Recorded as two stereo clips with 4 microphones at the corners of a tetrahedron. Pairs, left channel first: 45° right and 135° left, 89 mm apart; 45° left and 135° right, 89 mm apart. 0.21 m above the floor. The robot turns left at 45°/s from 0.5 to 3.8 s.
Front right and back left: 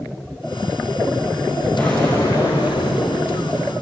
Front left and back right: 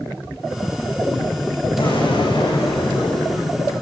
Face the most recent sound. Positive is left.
turn(degrees=-60)